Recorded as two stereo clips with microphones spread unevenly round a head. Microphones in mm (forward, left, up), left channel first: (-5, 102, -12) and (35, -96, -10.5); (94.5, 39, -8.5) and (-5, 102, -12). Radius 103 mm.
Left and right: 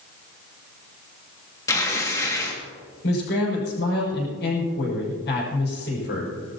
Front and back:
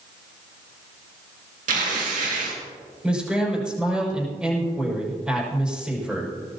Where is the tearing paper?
175° left, 2.5 m.